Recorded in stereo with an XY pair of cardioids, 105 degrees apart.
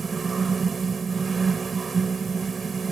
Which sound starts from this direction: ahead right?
A fan, at 0.0 s.